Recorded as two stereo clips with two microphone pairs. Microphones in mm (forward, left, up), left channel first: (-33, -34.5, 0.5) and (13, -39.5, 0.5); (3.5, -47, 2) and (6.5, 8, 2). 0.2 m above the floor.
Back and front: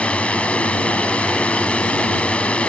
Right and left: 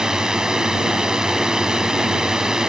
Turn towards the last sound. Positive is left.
turn(degrees=150)